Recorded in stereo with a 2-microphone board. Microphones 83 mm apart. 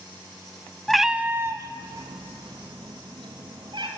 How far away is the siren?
I don't hear a siren.